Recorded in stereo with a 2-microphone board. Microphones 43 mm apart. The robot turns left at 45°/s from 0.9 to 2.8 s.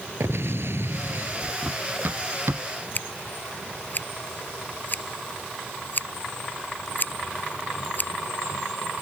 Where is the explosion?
70° right (ahead or behind); by 1.5 s 45° right (ahead or behind).